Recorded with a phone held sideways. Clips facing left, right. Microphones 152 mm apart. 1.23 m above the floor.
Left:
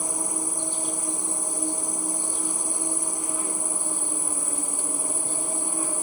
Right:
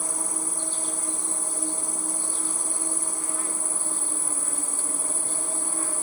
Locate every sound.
0.0 s an insect: 15° left (ahead or behind)